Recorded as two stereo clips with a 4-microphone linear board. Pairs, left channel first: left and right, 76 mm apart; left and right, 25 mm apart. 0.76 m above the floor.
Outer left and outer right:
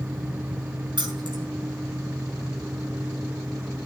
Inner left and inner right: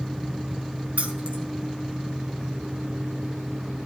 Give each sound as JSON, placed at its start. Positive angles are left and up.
{"t": 1.0, "sound": "keys jangling", "side_deg": -75, "distance_m": 4.5}